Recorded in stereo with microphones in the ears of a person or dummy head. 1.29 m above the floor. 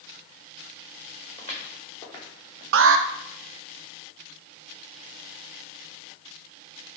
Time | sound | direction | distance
1.4 | footsteps | 35° left (ahead or behind) | 4.5 m
2.7 | an alarm | 65° right (ahead or behind) | 0.6 m